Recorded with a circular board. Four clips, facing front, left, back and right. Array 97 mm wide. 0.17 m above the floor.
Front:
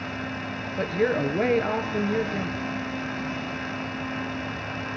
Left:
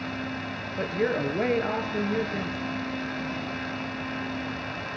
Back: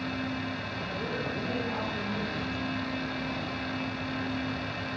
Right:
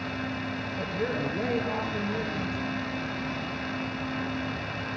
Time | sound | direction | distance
0.8 | a woman speaking | 25° left | 3.5 m